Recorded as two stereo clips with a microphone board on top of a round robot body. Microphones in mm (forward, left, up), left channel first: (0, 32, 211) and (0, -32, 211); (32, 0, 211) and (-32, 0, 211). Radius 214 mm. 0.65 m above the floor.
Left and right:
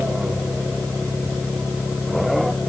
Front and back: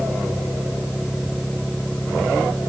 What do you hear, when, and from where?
Only background noise.